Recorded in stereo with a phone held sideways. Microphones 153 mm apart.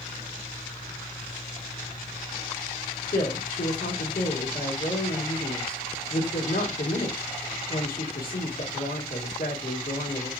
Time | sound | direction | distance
3.1 | a woman speaking | 75° left (ahead or behind) | 1.4 m